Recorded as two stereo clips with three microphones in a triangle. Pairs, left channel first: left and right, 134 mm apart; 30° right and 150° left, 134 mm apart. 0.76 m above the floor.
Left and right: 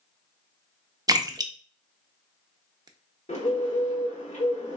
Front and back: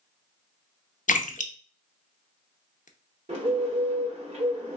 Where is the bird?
120° left, 1.4 m.